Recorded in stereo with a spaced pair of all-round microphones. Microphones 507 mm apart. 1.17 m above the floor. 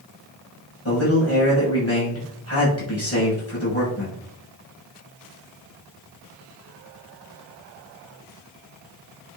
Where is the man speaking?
25° left (ahead or behind), 6 m.